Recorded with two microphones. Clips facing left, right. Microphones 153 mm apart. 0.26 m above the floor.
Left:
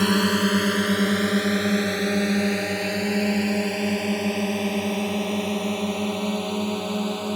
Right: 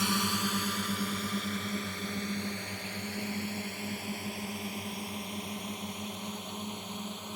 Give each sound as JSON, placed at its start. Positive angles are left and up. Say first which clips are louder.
{"t": 0.0, "sound": "a drone", "louder": "left 12 dB", "side_deg": 60}